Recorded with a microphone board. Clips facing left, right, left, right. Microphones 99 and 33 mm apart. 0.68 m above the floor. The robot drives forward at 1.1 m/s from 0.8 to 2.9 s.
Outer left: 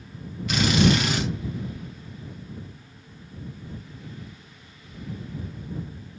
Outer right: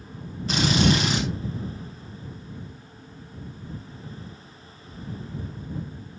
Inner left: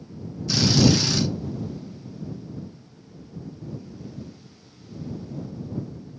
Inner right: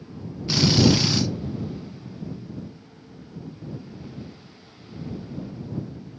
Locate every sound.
0.5 s a drill: 30° right (ahead or behind), 4.5 m